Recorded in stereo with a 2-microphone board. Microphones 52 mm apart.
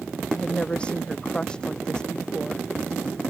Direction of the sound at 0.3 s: 25° left (ahead or behind).